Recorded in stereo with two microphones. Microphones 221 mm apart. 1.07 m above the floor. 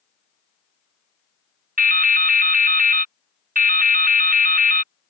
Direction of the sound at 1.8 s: 40° right (ahead or behind).